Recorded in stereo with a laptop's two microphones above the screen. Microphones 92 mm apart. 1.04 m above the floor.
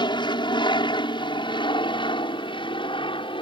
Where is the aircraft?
55° left (ahead or behind); by 3.4 s 65° left (ahead or behind).